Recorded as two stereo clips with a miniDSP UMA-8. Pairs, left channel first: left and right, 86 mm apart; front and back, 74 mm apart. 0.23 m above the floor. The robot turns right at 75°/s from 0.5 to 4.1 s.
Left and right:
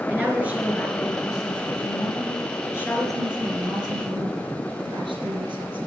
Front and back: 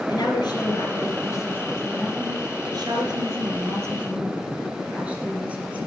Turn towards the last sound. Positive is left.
turn(degrees=-105)